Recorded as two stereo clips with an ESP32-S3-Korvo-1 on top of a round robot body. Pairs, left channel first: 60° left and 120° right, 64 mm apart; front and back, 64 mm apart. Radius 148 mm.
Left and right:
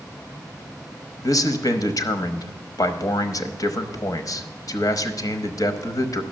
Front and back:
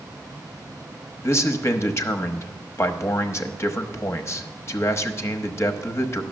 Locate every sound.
1.2 s a man speaking: 45° left, 1.0 m